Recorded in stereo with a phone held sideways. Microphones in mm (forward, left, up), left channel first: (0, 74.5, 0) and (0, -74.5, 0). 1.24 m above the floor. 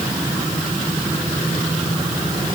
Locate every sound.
Only background noise.